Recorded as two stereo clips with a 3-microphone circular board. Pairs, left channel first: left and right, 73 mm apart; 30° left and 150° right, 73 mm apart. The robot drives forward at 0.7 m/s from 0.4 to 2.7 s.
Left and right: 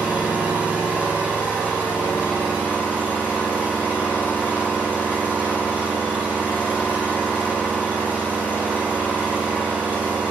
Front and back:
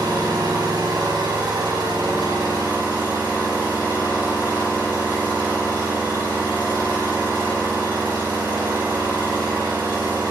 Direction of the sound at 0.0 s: 160° right.